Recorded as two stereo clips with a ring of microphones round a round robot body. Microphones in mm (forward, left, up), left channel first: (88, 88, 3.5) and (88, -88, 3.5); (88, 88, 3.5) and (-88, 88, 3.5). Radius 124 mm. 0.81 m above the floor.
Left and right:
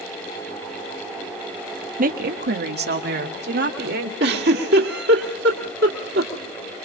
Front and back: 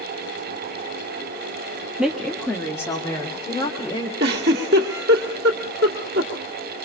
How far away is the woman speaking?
About 1.1 m.